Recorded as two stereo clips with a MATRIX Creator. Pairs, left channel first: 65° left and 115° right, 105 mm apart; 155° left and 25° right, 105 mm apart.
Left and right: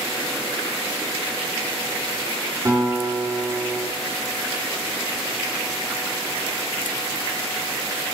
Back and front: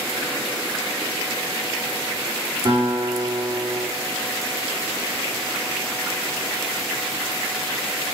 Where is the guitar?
65° right, 3.5 m.